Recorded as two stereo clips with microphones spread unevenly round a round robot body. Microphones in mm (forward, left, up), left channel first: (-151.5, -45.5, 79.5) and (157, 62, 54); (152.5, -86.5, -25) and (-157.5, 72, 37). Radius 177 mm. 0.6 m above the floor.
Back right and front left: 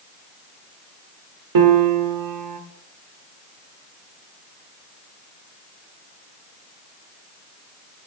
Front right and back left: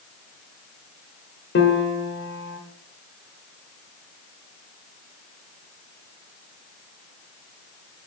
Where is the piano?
30° left, 1.4 m.